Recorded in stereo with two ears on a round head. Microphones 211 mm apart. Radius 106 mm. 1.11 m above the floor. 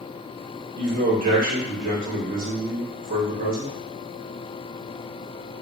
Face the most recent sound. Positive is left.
turn(degrees=-35)  # may be behind; listen again after turning